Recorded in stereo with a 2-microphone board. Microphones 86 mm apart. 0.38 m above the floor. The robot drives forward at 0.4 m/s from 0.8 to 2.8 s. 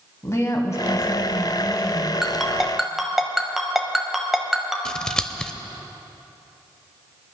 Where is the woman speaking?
35° left (ahead or behind), 2.0 m; by 2.1 s 30° left (ahead or behind), 2.5 m.